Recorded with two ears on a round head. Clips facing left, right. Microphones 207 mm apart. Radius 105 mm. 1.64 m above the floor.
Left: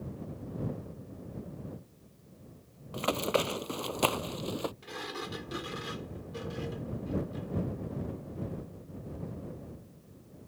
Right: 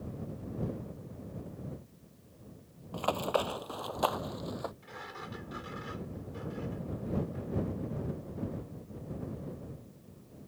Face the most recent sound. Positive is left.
turn(degrees=55)  # may be behind; listen again after turning